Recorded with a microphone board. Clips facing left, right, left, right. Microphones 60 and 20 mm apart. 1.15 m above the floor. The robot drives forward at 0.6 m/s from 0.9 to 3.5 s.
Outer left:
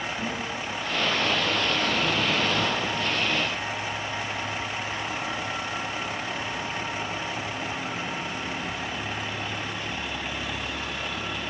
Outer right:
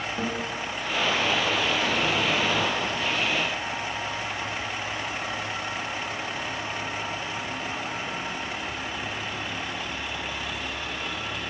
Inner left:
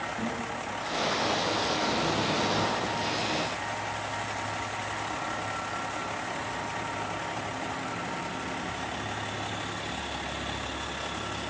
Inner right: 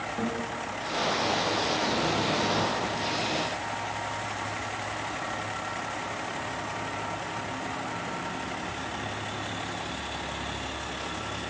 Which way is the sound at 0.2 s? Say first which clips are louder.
Outer right 2 dB, inner right 2 dB; 55° right (ahead or behind).